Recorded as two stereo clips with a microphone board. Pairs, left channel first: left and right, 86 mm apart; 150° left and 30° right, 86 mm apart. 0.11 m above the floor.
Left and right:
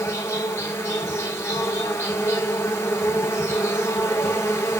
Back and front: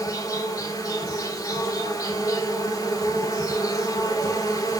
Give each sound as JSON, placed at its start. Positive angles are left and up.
{"t": 0.0, "sound": "an insect", "azimuth_deg": 140, "distance_m": 0.9}